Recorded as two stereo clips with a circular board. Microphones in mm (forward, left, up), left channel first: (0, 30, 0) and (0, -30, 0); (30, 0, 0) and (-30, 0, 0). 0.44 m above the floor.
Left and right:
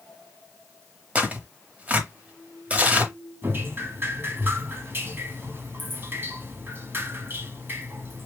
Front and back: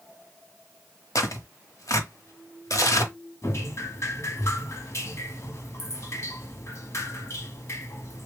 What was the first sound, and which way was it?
Tearing paper, 25° right.